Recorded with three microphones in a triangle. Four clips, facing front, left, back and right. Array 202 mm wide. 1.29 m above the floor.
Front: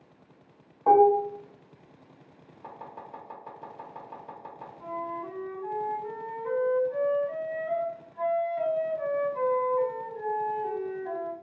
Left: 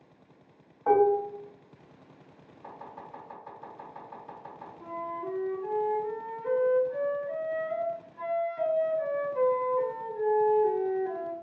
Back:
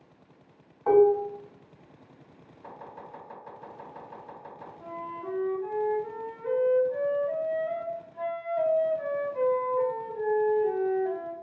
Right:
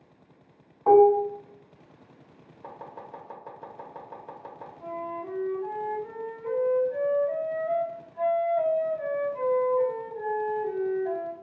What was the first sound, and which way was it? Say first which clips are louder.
Dishes clattering: right 6 dB, front 1 dB; 55° right.